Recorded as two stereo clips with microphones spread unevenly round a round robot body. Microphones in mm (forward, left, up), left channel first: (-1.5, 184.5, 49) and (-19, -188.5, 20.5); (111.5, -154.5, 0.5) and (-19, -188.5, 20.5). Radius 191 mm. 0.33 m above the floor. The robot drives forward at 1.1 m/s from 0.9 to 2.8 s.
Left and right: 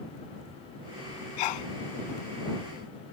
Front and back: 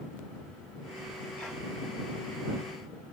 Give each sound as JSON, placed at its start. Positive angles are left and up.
{"t": 1.4, "sound": "a sneeze", "azimuth_deg": 100}